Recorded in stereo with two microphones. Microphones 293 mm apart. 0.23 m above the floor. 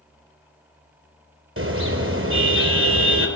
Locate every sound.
1.6 s a car horn: 45° right (ahead or behind), 3 m